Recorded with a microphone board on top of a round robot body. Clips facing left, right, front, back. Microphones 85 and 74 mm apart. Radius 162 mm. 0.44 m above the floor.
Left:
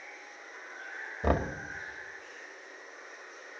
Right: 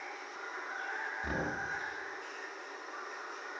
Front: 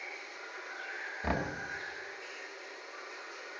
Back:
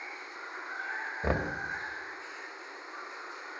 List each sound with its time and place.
0.0 s running water: 120° right, 1.3 m
1.2 s knocking: 115° left, 2.0 m